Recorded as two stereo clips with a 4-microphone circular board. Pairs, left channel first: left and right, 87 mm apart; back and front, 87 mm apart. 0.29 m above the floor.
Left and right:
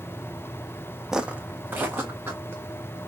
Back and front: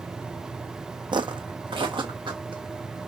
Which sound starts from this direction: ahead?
Footsteps, at 1.1 s.